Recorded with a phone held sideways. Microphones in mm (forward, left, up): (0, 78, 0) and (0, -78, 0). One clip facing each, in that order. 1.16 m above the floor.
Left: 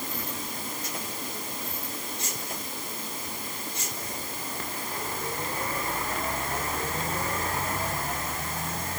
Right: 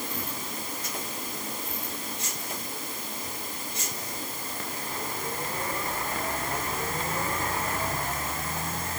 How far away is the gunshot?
No gunshot in this recording.